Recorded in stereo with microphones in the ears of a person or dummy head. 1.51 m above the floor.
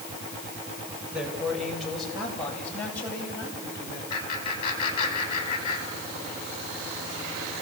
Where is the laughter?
35° left (ahead or behind), 7 m.